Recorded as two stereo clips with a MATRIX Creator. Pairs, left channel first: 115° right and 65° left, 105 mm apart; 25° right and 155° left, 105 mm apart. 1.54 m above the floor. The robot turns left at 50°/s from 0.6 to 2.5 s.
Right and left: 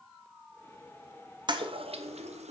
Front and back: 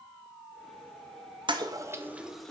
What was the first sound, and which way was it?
A toilet flushing, 115° left.